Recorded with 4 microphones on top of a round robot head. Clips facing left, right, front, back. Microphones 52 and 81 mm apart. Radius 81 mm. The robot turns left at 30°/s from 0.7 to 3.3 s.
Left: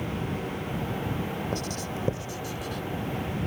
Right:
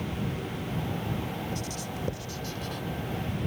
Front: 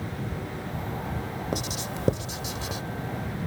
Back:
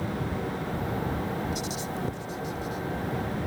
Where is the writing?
40° left; by 2.8 s straight ahead.